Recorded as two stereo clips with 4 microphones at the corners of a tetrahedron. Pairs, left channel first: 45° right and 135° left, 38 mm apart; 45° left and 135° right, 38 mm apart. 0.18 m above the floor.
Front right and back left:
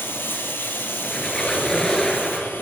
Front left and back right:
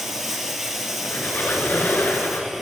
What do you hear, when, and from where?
0.0 s running water: 55° right, 1.8 m
1.0 s a squeak: 30° left, 2 m